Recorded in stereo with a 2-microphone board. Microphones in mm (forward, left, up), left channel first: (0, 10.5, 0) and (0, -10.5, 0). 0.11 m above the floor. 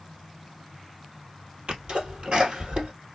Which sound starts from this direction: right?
A sneeze, at 1.7 s.